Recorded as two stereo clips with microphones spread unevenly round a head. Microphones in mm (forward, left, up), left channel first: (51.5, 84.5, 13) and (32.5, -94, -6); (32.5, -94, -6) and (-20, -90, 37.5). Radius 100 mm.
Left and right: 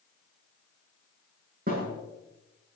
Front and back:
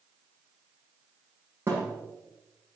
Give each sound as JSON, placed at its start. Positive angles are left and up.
{"t": 1.7, "sound": "a thud", "azimuth_deg": -145, "distance_m": 7.5}